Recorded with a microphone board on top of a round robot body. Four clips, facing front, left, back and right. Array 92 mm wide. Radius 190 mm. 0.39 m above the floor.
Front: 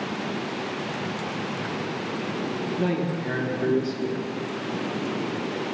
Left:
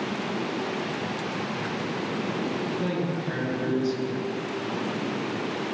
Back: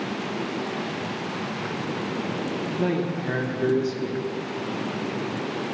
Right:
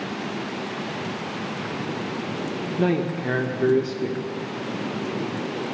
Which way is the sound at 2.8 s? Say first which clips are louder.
Right 5 dB, back 1 dB; 100° right.